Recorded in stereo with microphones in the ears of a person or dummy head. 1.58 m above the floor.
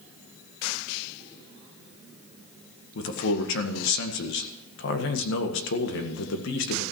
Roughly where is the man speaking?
Left.